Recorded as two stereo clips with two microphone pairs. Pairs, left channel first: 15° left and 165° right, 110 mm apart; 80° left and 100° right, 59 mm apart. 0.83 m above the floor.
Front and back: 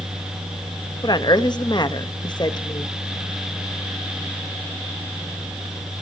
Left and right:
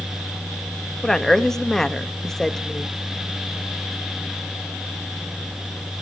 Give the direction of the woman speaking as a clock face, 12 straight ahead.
12 o'clock.